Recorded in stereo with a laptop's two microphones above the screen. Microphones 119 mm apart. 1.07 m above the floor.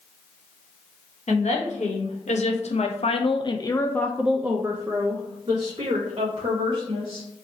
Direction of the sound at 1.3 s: 80° left.